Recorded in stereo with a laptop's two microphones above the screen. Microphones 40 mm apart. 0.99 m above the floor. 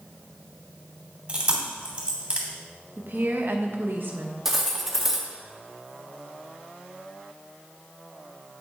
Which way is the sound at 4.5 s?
10° right (ahead or behind).